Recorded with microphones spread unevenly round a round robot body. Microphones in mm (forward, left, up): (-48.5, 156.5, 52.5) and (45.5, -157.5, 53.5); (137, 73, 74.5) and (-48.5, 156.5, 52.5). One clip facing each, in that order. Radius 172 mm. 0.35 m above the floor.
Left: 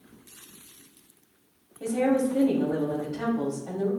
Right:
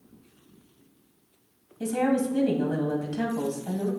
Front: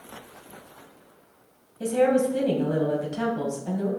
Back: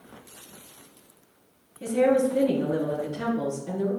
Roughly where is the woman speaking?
Ahead right.